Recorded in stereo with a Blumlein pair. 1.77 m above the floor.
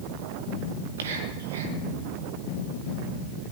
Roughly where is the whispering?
Ahead right.